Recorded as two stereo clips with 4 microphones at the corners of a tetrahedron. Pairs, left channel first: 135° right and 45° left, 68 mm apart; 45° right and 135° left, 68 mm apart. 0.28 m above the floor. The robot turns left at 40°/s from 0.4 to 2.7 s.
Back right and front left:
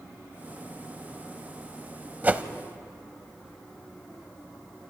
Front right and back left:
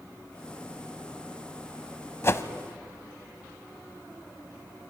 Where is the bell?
No bell in this recording.